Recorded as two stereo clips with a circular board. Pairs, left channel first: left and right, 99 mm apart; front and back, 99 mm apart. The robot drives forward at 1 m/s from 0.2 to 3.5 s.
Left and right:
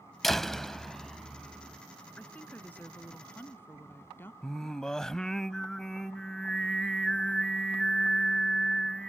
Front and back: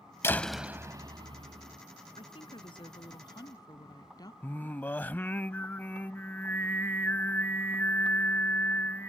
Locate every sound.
0.2 s a door slam: 5° left; by 1.8 s straight behind
2.2 s a woman speaking: 15° left; by 4.3 s 30° left
4.4 s singing: 15° left